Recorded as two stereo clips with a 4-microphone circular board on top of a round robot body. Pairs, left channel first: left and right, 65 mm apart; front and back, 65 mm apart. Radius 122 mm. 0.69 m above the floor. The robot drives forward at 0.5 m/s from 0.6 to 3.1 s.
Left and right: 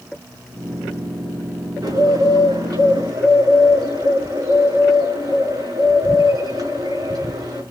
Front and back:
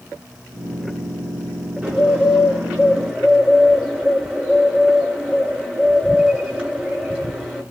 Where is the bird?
105° right, 10 m; by 7.6 s 110° right, 10 m.